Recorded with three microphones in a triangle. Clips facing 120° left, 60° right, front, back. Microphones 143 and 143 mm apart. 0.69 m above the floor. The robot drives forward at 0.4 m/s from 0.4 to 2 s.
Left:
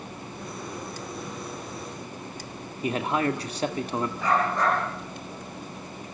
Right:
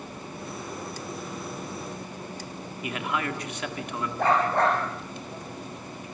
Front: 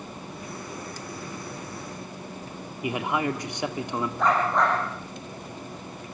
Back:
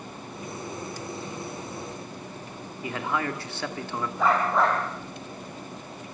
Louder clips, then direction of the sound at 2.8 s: Left 5 dB, front 3 dB; 70° left.